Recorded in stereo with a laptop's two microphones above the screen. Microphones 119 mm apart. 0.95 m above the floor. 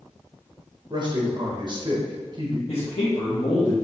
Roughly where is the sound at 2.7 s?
Left.